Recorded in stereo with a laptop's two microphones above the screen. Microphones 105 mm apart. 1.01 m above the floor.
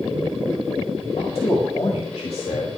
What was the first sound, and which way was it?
A man speaking, 70° left (ahead or behind).